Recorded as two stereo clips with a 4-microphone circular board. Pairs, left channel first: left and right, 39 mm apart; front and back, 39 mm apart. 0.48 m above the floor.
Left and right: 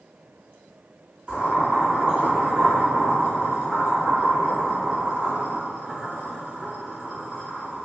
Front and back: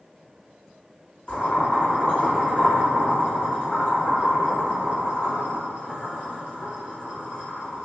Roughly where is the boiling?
Ahead right.